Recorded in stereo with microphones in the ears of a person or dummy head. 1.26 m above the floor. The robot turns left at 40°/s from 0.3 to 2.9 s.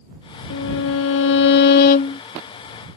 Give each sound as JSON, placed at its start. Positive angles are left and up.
{"t": 0.5, "sound": "a violin", "azimuth_deg": 105}